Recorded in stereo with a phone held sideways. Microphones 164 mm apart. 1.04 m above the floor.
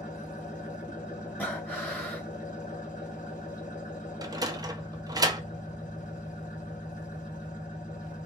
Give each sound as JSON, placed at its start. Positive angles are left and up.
{"t": 0.0, "sound": "an engine running", "side_deg": 50, "distance_m": 1.4}
{"t": 1.4, "sound": "breathing", "side_deg": 10, "distance_m": 1.3}
{"t": 4.2, "sound": "a sliding door", "side_deg": -25, "distance_m": 0.5}